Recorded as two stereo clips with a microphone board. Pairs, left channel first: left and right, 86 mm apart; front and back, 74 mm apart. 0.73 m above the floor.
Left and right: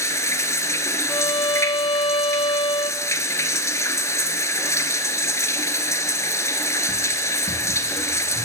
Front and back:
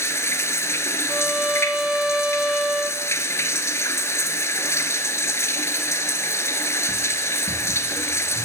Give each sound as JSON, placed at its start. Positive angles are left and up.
{"t": 0.0, "sound": "running water", "azimuth_deg": 45, "distance_m": 1.2}
{"t": 1.1, "sound": "a violin", "azimuth_deg": 100, "distance_m": 0.5}